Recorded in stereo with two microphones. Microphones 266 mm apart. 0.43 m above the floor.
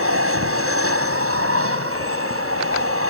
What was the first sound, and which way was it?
An aircraft, 55° right (ahead or behind).